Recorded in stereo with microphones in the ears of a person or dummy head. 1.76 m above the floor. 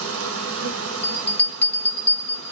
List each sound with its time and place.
0.0 s an insect: 85° right, 1.3 m
1.0 s a bell: 10° left (ahead or behind), 0.6 m